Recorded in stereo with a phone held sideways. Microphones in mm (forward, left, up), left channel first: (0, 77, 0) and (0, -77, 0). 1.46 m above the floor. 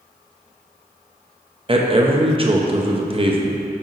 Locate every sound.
1.7 s a man speaking: 35° right (ahead or behind), 0.5 m